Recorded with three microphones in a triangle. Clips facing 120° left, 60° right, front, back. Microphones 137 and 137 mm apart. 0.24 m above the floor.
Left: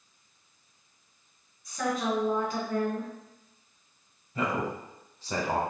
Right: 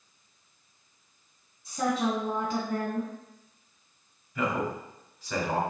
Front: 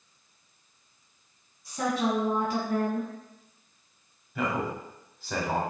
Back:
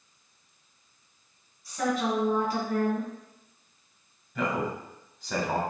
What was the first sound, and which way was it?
A woman speaking, 40° right.